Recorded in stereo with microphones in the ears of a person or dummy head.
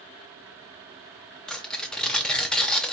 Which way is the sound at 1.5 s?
5° left (ahead or behind).